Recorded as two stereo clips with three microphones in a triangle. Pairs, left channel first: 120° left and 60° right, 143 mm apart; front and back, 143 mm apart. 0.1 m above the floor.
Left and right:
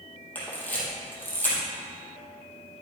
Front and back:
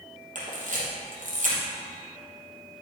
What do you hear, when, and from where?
0.3 s a camera shutter: 165° right, 3 m